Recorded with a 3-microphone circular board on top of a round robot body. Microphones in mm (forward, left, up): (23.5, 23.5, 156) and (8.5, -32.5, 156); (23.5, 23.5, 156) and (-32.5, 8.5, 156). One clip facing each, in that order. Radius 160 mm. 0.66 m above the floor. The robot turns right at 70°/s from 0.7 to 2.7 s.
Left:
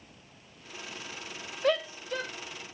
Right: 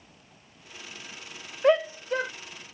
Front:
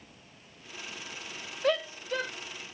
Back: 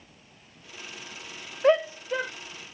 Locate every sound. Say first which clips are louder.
1.6 s a shout: right 6 dB, back 7 dB; 145° right; by 2.3 s 100° right